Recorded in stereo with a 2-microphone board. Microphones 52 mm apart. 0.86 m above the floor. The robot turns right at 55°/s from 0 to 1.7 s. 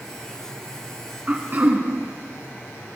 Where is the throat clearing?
25° right (ahead or behind), 2.5 m; by 1.9 s 50° right (ahead or behind), 2.5 m.